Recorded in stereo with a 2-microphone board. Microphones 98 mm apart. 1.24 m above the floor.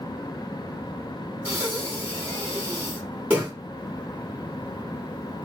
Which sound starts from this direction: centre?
Breathing, at 1.4 s.